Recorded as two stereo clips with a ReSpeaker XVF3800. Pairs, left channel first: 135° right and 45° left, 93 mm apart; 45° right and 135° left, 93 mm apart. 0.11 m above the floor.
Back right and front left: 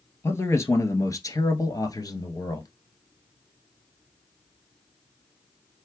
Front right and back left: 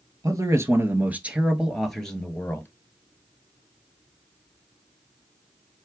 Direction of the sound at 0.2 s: 170° left.